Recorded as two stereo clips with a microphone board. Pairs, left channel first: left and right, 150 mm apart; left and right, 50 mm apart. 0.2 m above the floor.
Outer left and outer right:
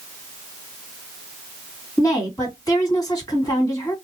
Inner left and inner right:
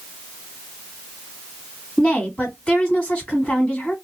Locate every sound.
2.0 s a woman speaking: 25° left (ahead or behind), 1.8 m